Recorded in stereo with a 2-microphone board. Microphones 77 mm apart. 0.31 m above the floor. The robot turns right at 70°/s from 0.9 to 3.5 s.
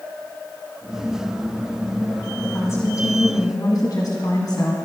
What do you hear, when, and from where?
2.4 s a woman speaking: 25° left, 1.9 m; by 4.8 s 105° left, 1.9 m